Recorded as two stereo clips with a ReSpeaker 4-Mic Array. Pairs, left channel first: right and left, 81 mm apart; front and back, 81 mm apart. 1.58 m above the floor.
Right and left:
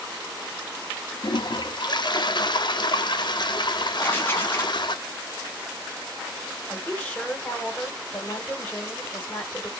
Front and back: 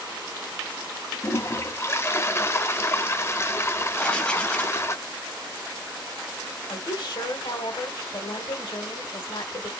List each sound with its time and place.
1.2 s a toilet flushing: 60° right, 0.6 m
4.0 s writing: 65° right, 1.1 m
6.7 s a woman speaking: 20° right, 1.8 m